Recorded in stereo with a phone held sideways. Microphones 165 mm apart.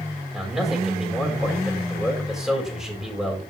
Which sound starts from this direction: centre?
A man speaking, at 0.3 s.